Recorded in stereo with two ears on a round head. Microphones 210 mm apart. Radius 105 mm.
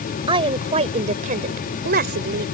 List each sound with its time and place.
0.3 s a woman speaking: 20° right (ahead or behind); by 2.5 s 50° right (ahead or behind)